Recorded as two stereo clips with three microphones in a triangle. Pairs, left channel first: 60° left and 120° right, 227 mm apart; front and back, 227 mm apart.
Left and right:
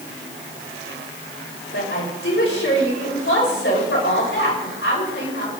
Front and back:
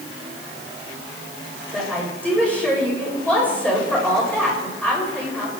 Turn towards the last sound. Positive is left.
turn(degrees=85)